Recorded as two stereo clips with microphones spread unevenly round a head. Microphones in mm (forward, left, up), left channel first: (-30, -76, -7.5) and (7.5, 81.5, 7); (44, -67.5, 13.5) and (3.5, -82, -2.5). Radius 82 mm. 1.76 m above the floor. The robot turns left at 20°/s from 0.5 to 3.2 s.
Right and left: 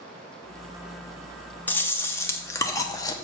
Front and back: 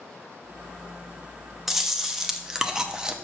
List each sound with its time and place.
1.7 s chewing: 25° right, 0.7 m; by 3.1 s 55° right, 0.7 m